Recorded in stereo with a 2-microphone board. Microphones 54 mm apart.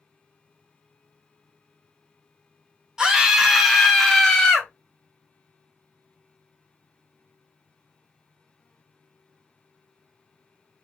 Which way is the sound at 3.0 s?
15° right (ahead or behind).